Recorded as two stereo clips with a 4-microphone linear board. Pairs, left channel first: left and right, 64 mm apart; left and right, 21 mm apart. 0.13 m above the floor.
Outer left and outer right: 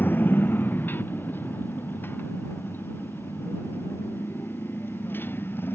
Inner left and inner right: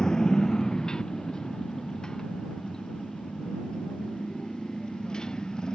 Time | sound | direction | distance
0.0 | a motorcycle | 30° left (ahead or behind) | ?